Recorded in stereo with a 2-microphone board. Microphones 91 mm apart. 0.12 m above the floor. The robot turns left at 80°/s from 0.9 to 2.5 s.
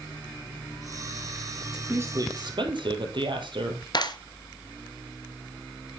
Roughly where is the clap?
Left.